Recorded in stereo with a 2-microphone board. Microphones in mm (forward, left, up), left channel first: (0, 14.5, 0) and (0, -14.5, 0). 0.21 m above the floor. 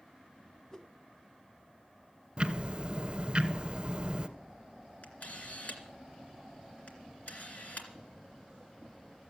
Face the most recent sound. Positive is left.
turn(degrees=60)  # may be behind; listen again after turning